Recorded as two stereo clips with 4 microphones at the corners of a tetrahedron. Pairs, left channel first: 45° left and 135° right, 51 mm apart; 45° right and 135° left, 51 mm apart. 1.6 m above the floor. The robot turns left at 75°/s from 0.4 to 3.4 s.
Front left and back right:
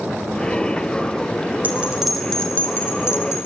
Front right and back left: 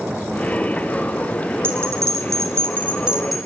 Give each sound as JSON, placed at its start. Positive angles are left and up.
{"t": 1.6, "sound": "a bell", "azimuth_deg": 170, "distance_m": 4.0}